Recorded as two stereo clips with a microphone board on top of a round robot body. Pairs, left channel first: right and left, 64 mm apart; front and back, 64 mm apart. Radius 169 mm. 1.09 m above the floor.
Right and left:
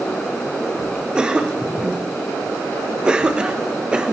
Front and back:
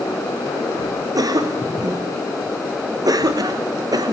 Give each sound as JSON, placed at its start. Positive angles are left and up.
{"t": 1.1, "sound": "a cough", "azimuth_deg": 165, "distance_m": 1.2}